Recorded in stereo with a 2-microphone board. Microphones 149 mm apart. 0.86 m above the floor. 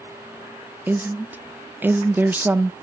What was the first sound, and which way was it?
A woman speaking, 15° right (ahead or behind).